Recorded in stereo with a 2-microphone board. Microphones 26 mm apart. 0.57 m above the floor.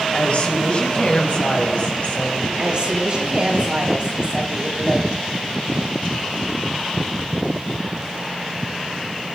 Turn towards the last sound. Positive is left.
turn(degrees=-40)  # may be behind; listen again after turning